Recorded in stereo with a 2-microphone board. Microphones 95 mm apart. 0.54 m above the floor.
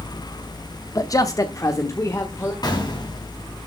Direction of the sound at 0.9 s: 35° left (ahead or behind).